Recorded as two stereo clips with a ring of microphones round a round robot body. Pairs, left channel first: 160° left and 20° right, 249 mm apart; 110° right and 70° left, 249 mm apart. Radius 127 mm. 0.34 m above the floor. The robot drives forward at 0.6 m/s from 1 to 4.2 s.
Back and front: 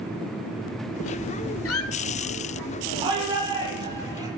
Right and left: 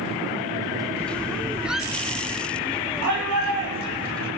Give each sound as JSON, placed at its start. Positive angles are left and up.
{"t": 1.6, "sound": "a squeak", "azimuth_deg": 155, "distance_m": 1.0}
{"t": 3.0, "sound": "a shout", "azimuth_deg": 50, "distance_m": 10.0}